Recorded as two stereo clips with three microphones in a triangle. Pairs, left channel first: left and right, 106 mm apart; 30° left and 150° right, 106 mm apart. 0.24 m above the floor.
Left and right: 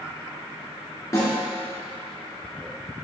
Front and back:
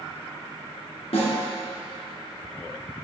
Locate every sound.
1.1 s a snare drum: 30° left, 2 m